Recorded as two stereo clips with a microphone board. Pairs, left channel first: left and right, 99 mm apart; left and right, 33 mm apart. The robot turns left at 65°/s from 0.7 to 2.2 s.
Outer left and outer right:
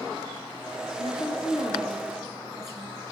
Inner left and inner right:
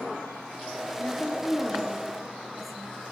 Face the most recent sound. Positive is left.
turn(degrees=-5)